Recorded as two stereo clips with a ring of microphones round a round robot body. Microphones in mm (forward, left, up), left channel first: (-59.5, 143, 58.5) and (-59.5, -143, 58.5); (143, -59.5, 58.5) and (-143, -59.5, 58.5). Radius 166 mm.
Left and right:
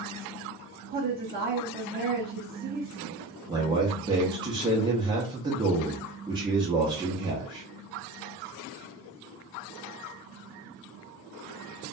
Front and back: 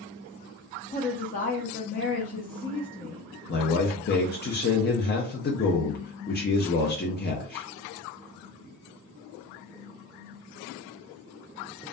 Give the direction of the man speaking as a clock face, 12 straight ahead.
1 o'clock.